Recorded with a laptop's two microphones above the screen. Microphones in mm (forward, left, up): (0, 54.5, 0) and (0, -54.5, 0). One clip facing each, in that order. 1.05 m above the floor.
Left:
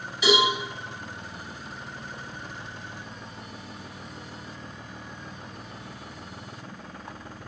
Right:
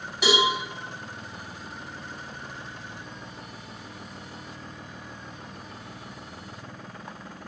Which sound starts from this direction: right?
A cowbell, at 0.2 s.